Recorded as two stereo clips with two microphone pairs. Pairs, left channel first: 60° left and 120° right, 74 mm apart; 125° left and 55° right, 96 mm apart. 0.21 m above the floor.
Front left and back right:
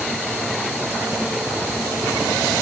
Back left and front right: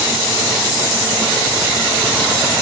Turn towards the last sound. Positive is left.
No sound to turn to.